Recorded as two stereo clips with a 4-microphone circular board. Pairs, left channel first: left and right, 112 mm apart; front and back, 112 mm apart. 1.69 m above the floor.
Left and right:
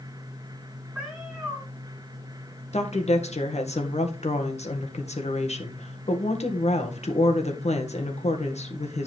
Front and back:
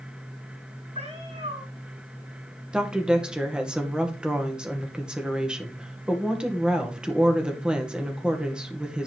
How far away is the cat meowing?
About 6.5 m.